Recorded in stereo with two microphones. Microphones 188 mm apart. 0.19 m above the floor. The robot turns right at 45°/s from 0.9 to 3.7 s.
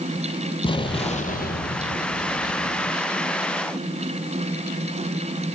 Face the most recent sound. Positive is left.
turn(degrees=155)